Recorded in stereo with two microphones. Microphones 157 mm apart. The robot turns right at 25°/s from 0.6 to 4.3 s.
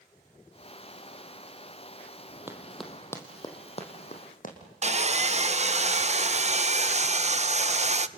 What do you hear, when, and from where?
2.5 s running footsteps: 15° right (ahead or behind), 2.5 m; by 4.5 s 60° left (ahead or behind), 4 m
4.8 s sawing: 45° right (ahead or behind), 0.6 m